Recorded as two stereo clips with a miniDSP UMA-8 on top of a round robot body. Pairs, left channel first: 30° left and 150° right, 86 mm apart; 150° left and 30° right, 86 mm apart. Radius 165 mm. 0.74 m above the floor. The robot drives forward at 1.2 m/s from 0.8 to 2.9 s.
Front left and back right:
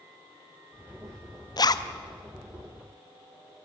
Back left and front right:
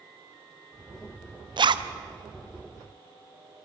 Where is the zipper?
5° right, 1.1 m; by 1.9 s 10° right, 0.7 m.